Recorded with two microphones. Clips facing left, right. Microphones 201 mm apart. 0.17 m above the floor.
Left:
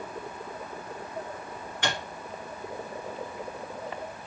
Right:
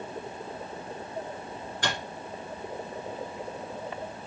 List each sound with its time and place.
1.8 s a microwave: 45° right (ahead or behind), 1.9 m